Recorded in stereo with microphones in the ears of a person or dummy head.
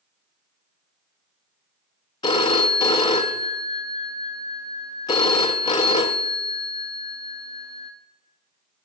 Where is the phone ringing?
25° left (ahead or behind), 0.7 m.